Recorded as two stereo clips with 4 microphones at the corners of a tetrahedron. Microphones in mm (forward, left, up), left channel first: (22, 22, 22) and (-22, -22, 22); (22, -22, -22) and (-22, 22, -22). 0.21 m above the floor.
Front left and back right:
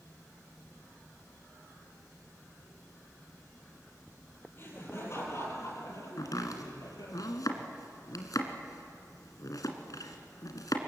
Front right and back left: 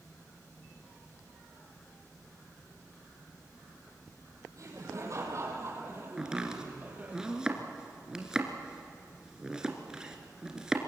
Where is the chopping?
55° left, 2.5 m.